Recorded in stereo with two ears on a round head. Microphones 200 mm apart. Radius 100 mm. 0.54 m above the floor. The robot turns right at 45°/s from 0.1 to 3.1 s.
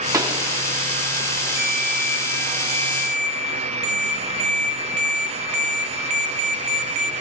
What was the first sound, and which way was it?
A pop, 15° right (ahead or behind).